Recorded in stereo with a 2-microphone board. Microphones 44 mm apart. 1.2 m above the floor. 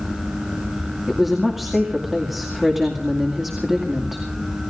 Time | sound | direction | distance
1.1 | a woman speaking | 5° right (ahead or behind) | 2.5 m